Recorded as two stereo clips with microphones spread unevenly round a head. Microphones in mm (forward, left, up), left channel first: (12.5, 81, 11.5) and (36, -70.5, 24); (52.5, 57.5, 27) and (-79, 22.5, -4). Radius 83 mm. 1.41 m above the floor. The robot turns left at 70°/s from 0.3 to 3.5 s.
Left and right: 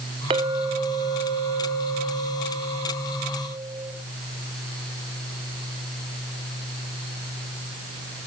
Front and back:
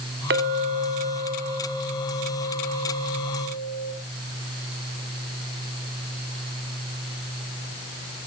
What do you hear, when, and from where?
0.3 s a clink: 140° right, 2 m; by 3.9 s 5° right, 2 m